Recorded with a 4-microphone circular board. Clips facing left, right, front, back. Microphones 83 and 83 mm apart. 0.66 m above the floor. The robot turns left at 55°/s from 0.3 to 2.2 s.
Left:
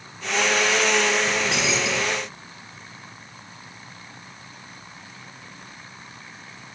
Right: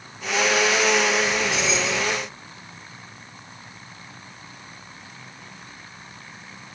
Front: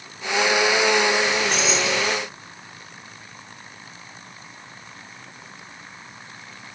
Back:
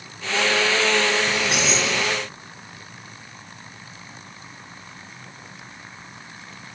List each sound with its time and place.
1.3 s keys jangling: 110° left, 5.5 m; by 2.1 s 65° left, 5.5 m